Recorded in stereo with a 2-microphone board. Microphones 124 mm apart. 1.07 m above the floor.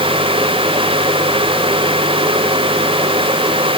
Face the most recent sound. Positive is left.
No sound to turn to.